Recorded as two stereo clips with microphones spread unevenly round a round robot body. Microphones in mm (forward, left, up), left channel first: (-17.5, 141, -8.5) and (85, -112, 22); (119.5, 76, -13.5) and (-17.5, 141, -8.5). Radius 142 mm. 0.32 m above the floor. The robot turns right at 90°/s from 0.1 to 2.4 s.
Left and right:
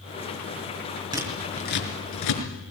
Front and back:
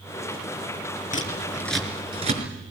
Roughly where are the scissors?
Ahead.